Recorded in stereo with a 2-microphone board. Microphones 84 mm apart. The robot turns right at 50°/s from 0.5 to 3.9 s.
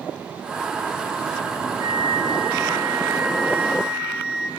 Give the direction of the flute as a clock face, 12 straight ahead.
4 o'clock.